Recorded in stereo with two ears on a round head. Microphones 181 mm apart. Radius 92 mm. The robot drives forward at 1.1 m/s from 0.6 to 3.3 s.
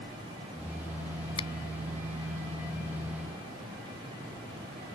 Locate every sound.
1.4 s a finger snap: 25° left (ahead or behind)